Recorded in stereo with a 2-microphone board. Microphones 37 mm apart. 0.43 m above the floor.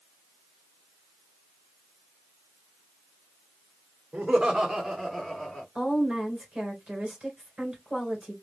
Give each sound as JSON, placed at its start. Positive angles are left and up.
{"t": 4.1, "sound": "laughter", "side_deg": -25, "distance_m": 0.9}
{"t": 5.8, "sound": "a woman speaking", "side_deg": -20, "distance_m": 1.9}